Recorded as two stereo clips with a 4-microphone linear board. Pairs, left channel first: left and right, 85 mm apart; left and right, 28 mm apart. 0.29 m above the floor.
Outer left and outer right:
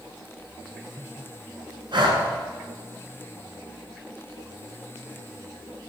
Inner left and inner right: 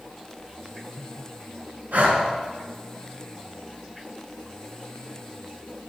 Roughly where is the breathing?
Right.